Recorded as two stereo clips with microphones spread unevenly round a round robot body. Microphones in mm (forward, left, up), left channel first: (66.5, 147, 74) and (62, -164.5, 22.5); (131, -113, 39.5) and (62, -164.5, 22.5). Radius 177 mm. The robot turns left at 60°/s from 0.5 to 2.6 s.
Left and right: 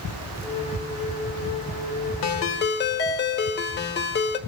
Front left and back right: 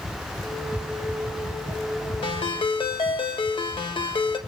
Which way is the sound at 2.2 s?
55° left.